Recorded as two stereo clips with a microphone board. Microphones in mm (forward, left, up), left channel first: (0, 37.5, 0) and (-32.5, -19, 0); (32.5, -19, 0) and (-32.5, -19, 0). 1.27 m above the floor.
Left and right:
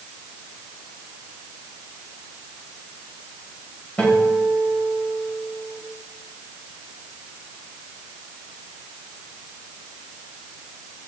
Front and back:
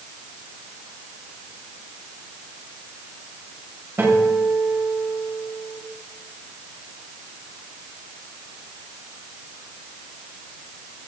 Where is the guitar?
130° left, 6 m.